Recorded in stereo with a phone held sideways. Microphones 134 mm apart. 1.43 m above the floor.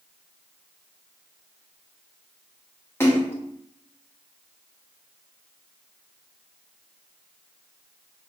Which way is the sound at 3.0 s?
20° left (ahead or behind).